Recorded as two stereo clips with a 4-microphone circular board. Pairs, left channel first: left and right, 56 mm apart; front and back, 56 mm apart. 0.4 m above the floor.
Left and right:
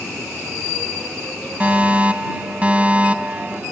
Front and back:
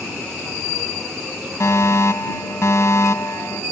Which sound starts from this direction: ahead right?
A fire alarm, at 1.6 s.